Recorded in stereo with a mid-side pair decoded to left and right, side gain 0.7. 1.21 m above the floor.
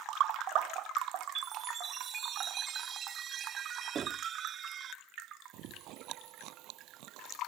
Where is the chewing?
60° right.